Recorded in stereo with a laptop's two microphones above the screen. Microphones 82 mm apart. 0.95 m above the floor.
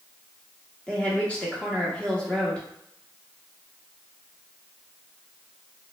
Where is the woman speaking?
15° left (ahead or behind), 0.8 m.